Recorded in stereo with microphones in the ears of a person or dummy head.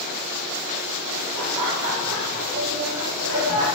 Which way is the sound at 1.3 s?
30° right (ahead or behind).